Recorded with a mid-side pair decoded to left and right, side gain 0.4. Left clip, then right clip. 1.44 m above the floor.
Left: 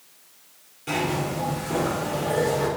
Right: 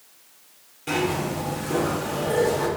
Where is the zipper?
20° right, 4 m.